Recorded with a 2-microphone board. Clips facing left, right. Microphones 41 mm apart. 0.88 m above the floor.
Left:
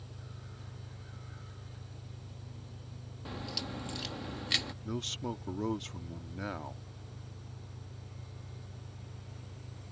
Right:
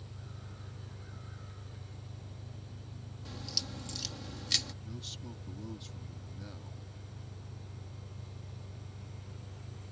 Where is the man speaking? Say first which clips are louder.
Left 9 dB; 65° left (ahead or behind).